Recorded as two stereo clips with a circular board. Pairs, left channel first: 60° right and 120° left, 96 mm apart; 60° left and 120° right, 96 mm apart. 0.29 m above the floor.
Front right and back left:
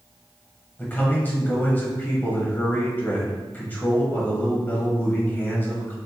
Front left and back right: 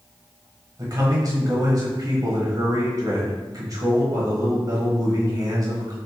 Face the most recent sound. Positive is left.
turn(degrees=-120)